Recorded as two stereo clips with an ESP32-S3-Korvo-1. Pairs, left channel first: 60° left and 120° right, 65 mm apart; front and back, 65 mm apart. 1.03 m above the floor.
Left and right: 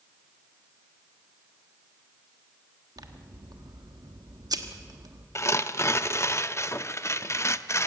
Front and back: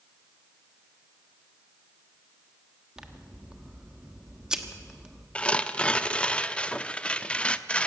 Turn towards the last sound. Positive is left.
turn(degrees=65)